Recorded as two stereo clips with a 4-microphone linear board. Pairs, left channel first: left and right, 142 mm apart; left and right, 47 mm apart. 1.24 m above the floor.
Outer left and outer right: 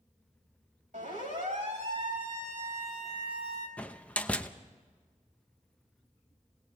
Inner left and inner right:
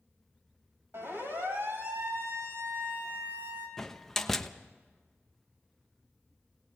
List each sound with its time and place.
0.9 s a siren: 70° right (ahead or behind), 7 m; by 3.7 s 55° right (ahead or behind), 7.5 m
3.8 s a door slam: 10° left (ahead or behind), 0.9 m